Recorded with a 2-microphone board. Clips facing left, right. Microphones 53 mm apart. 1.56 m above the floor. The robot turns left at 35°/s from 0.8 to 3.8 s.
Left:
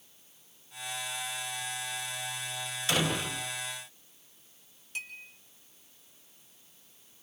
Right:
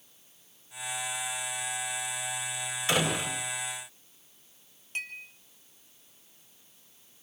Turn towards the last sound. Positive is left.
turn(degrees=-40)  # may be behind; listen again after turning